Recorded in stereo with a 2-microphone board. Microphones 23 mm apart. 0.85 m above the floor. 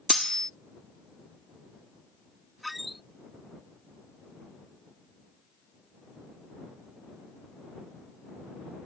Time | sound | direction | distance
0.1 | cutlery clinking | 20° left (ahead or behind) | ?
2.6 | a squeak | 5° right (ahead or behind) | ?